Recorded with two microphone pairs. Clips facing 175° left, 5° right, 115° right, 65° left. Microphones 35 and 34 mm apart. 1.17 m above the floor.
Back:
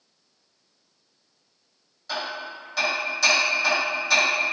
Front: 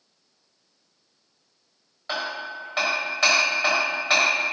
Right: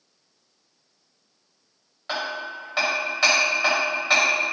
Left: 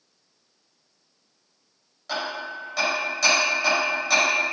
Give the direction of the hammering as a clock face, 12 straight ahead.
2 o'clock.